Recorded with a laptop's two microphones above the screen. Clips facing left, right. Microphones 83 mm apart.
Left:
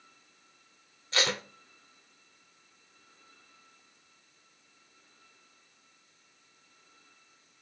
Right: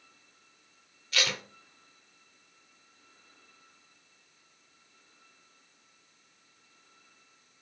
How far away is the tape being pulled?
About 0.5 m.